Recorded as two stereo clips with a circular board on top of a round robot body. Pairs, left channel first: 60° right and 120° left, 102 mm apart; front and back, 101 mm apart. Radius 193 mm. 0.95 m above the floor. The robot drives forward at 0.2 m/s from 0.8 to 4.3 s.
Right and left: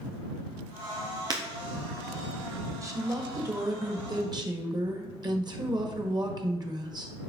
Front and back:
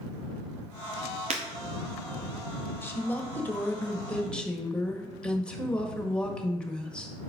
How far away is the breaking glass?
About 0.6 m.